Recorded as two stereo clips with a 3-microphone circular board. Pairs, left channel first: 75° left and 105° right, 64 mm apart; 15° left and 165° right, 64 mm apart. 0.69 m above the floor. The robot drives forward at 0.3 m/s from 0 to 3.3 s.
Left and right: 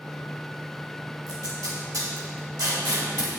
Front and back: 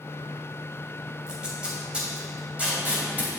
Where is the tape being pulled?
90° right, 2.5 m; by 3.3 s 100° right, 2.5 m.